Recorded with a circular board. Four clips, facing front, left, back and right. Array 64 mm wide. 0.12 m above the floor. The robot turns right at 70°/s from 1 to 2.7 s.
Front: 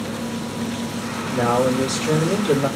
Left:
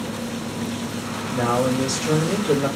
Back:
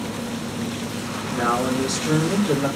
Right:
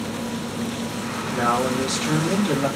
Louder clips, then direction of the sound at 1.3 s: Left 1 dB, front 3 dB; 125° right.